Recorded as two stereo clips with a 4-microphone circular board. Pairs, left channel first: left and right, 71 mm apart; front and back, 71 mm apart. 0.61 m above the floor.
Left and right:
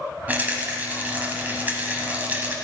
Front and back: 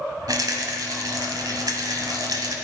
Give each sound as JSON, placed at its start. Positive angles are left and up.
{"t": 0.3, "sound": "a rattle", "azimuth_deg": -155, "distance_m": 1.7}